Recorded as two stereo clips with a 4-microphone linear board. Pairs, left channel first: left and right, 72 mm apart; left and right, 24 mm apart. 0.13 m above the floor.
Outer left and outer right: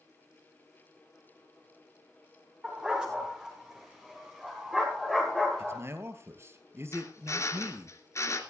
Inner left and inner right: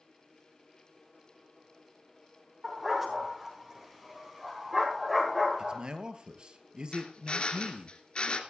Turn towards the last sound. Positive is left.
turn(degrees=45)  # may be behind; listen again after turning